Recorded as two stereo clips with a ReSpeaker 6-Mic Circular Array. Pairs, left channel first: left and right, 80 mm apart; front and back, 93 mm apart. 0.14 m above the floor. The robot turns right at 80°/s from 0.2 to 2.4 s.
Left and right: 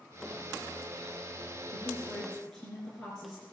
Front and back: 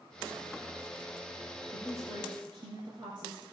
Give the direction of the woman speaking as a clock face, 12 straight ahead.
8 o'clock.